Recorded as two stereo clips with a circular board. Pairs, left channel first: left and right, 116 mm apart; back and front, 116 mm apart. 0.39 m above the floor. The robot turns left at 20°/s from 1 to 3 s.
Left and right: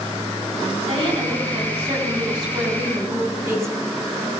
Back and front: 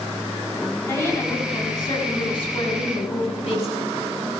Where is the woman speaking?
115° right, 3.5 m; by 3.8 s 155° right, 3.5 m.